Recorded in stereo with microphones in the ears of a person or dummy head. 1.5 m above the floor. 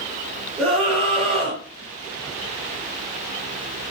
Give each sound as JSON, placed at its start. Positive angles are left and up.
{"t": 0.6, "sound": "a scream", "side_deg": -5, "distance_m": 1.8}